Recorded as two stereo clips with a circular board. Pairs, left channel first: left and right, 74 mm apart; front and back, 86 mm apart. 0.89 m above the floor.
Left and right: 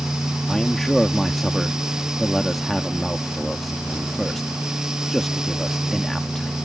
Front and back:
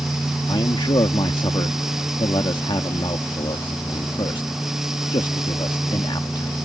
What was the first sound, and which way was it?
A man speaking, straight ahead.